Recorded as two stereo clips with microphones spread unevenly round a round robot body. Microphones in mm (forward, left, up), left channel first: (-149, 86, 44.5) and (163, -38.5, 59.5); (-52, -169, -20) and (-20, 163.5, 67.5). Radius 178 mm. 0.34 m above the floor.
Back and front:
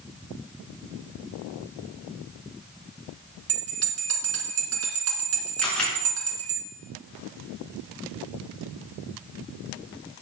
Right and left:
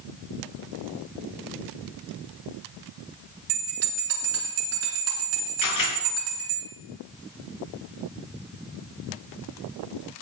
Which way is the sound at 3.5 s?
30° left.